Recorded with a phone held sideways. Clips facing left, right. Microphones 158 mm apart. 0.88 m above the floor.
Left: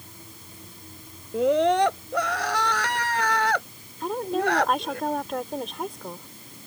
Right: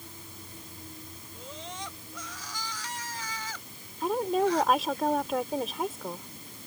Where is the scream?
70° left (ahead or behind).